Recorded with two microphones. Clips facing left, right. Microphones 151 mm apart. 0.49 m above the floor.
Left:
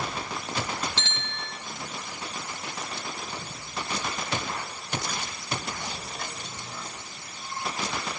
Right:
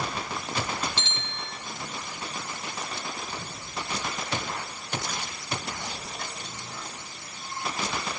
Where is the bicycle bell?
80° left, 6 m.